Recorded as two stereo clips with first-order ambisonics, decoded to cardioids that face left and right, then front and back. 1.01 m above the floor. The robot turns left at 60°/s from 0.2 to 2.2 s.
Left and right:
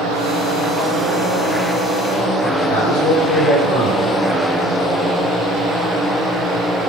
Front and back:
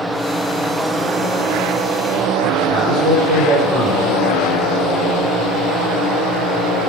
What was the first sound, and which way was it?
A man speaking, 100° left.